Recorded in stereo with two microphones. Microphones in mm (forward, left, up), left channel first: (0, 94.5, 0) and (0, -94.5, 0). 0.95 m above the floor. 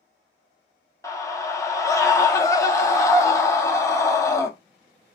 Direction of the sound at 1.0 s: 15° left (ahead or behind).